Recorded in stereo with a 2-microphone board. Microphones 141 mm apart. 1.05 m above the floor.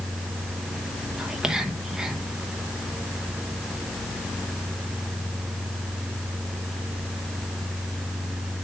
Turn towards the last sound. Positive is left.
turn(degrees=-5)  # may be behind; listen again after turning